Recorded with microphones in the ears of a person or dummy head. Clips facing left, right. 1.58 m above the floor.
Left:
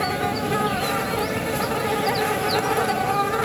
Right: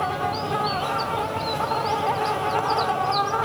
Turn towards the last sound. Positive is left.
turn(degrees=20)  # may be behind; listen again after turning